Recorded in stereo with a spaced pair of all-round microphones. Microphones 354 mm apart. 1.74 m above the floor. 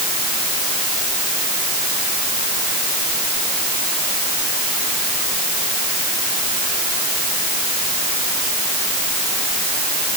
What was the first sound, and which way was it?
Only background noise.